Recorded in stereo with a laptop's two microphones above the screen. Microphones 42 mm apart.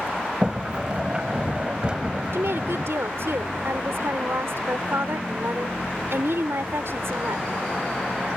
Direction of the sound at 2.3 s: 80° right.